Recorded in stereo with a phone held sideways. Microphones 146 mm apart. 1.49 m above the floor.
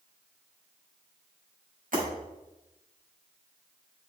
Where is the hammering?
No hammering in this recording.